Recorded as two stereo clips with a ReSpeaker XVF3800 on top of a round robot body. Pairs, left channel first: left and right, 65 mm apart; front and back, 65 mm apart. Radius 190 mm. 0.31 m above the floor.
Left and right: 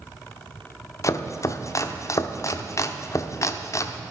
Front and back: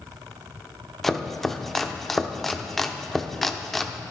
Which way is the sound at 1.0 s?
85° left.